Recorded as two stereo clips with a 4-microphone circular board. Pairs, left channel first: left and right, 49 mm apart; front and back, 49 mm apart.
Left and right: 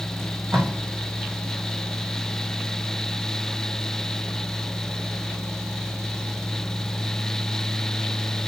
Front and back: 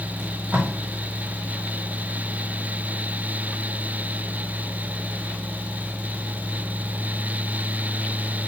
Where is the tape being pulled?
120° right, 4.5 m.